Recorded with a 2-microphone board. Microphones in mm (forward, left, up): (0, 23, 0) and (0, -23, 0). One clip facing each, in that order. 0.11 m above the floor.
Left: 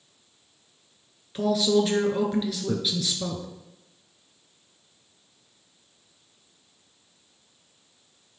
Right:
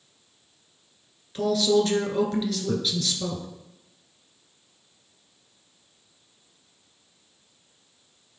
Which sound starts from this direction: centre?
A man speaking, at 1.4 s.